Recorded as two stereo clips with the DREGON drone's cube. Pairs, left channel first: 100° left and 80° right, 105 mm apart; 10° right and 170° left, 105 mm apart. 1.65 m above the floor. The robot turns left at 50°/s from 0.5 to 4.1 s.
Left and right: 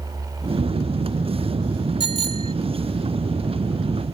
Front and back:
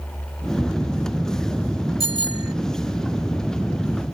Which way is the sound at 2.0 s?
140° left.